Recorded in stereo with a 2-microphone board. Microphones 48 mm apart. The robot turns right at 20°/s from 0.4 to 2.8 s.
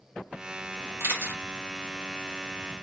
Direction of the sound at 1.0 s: 65° right (ahead or behind).